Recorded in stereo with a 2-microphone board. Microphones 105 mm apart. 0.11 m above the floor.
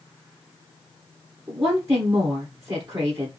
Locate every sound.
1.5 s a woman speaking: 30° right (ahead or behind), 2.5 m